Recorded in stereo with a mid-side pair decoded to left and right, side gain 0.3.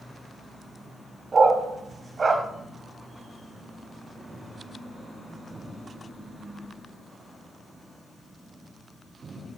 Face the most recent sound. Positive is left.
turn(degrees=-50)